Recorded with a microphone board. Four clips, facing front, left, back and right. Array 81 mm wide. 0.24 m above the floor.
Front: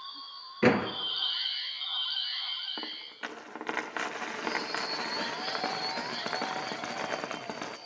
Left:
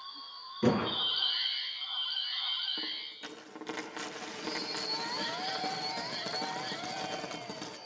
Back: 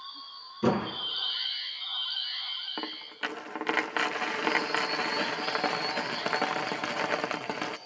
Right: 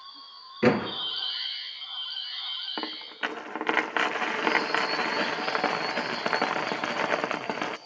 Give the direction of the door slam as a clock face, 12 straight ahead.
1 o'clock.